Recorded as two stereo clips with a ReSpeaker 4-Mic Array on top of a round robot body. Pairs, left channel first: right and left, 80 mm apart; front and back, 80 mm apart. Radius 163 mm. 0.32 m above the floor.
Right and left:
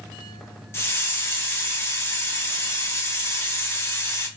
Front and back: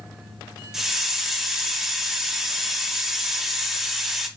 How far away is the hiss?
About 1.3 m.